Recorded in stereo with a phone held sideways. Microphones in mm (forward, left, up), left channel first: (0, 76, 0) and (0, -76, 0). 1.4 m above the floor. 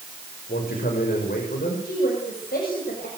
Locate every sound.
0.5 s a man speaking: 85° left, 7 m
1.9 s a woman speaking: 85° left, 7 m